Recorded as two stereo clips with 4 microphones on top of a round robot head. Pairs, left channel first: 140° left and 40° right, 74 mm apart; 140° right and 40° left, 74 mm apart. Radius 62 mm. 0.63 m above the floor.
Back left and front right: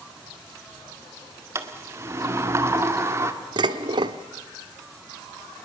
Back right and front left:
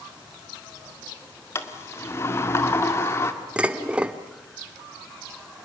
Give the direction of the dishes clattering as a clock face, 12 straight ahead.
1 o'clock.